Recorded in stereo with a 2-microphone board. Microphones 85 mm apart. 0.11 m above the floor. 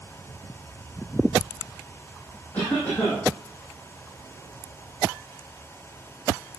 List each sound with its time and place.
2.5 s a cough: 20° left (ahead or behind), 5.5 m